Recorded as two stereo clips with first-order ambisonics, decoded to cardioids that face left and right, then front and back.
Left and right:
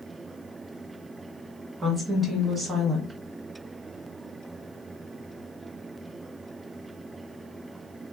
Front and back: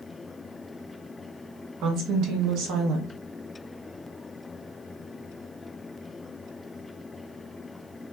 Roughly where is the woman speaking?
Behind.